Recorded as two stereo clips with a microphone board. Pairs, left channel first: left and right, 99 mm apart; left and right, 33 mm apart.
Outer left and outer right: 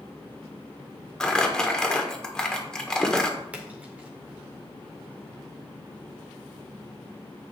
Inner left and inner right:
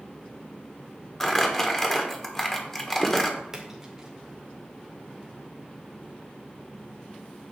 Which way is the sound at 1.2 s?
5° left (ahead or behind).